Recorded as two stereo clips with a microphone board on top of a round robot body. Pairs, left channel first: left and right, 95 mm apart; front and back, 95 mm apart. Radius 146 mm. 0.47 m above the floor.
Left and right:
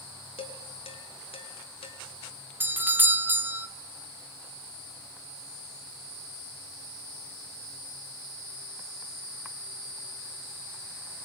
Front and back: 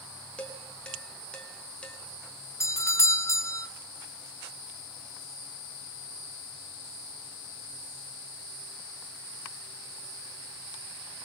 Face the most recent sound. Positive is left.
turn(degrees=-35)